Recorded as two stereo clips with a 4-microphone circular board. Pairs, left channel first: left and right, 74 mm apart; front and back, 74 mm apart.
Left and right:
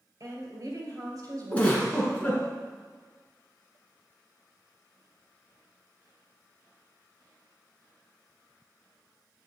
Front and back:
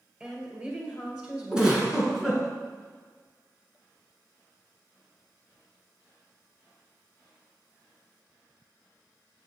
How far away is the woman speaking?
About 2 m.